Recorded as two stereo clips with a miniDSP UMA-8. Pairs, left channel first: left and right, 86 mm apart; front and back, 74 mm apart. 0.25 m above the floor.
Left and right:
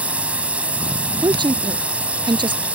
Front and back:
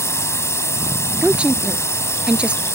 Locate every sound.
0.0 s a drone: 25° right
1.2 s a woman speaking: 105° right